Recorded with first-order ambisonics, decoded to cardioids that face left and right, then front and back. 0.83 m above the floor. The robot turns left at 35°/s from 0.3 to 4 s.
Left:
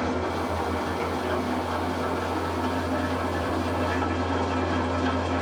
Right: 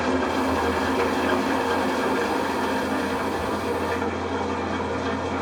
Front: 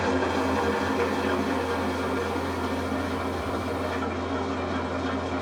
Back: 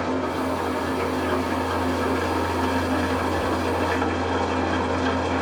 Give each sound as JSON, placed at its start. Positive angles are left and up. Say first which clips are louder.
{"t": 0.0, "sound": "an engine running", "louder": "right 4 dB, even", "azimuth_deg": -55, "distance_m": 1.1}